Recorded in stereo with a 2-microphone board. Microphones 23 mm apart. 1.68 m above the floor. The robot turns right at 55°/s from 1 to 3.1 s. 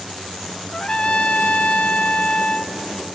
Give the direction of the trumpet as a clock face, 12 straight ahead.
10 o'clock.